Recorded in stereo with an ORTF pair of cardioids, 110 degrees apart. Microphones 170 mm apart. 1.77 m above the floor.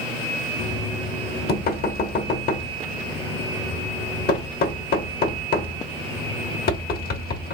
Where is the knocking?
65° left, 1.2 m.